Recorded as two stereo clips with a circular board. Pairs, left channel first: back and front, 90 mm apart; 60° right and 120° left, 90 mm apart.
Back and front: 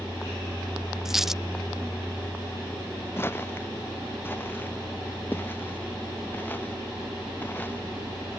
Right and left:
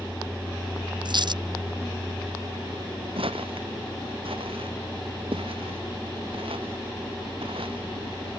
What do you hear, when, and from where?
1.1 s a dropped coin: 85° left
3.2 s footsteps: 115° left; by 7.8 s 110° left